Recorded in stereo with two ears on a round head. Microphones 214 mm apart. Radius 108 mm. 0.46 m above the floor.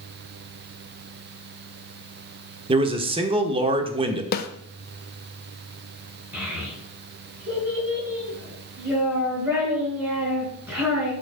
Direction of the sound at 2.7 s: 20° right (ahead or behind).